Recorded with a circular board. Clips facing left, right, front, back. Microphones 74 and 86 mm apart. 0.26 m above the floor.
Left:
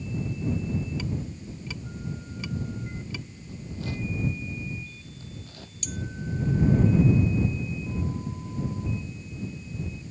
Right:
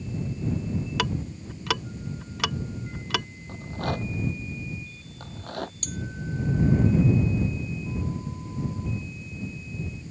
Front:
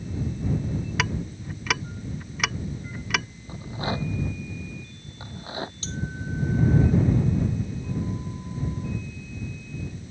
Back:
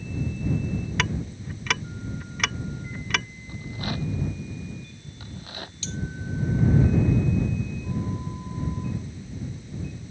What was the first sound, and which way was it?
Ticking, 85° right.